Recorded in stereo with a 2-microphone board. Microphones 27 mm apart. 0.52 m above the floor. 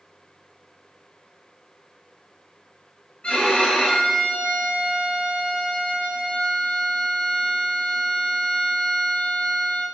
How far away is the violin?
About 3.5 m.